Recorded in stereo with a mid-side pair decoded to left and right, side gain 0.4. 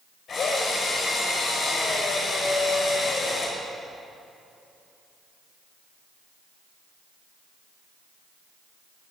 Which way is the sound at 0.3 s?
60° left.